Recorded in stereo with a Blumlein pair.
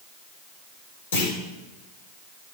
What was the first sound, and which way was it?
A clunk, 65° left.